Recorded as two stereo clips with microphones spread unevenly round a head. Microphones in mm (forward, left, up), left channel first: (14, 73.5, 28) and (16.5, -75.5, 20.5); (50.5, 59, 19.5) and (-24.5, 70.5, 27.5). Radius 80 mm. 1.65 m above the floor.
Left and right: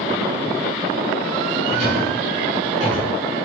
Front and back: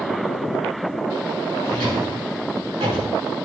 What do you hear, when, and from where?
1.6 s a drawer: 140° right, 8 m